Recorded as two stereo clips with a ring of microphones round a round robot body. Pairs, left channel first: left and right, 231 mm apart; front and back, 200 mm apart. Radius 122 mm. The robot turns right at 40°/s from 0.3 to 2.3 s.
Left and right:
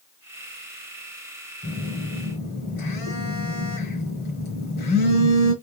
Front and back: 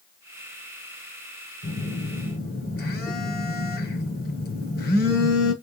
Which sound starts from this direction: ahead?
A phone buzzing, at 1.6 s.